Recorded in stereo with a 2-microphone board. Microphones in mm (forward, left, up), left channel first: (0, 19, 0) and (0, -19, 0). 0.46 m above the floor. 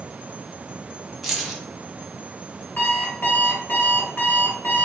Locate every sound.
1.2 s keys jangling: 5° right (ahead or behind), 0.7 m
2.8 s an alarm clock: 55° left (ahead or behind), 1.0 m